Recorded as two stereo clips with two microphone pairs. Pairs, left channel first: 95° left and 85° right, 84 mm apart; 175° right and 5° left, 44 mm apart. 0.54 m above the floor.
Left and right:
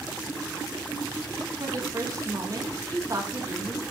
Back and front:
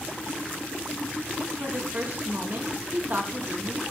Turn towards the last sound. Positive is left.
turn(degrees=-40)